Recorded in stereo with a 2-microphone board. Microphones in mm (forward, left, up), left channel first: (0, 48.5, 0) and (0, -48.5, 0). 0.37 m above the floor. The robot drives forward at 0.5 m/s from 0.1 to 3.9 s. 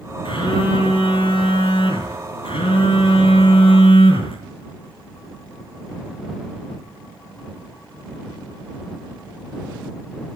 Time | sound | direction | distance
0.2 | a phone buzzing | 65° left (ahead or behind) | 5 m